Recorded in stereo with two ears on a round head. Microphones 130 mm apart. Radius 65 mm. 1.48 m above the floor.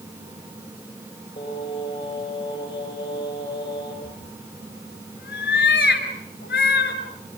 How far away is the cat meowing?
About 4 m.